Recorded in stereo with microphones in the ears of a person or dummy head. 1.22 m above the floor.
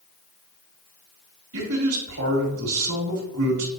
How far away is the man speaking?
About 3 m.